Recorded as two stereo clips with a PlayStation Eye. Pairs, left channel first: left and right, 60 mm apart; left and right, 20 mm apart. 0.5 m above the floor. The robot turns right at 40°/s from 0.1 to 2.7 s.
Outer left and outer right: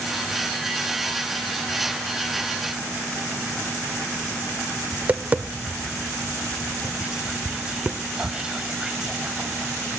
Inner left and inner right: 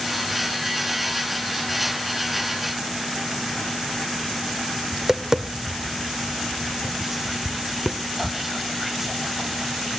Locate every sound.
4.9 s tapping: 25° right (ahead or behind), 0.7 m
7.0 s whispering: 10° right (ahead or behind), 0.7 m